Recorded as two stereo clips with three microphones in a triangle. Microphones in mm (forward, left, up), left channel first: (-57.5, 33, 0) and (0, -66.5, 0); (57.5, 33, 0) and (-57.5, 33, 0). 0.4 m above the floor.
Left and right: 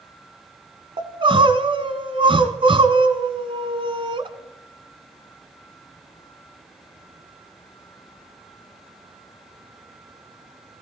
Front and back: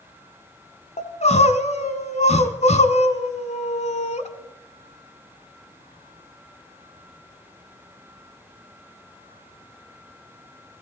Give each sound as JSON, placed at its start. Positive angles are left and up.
{"t": 1.0, "sound": "crying", "azimuth_deg": -20, "distance_m": 1.1}